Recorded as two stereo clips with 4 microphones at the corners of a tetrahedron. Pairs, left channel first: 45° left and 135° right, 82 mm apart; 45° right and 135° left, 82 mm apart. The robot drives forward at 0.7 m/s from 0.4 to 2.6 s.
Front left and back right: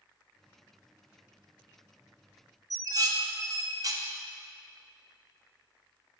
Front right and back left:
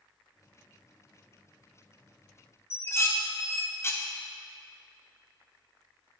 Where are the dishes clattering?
100° right, 0.7 m.